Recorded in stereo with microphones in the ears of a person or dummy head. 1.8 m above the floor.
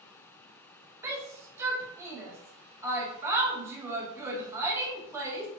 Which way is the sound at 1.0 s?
15° right (ahead or behind).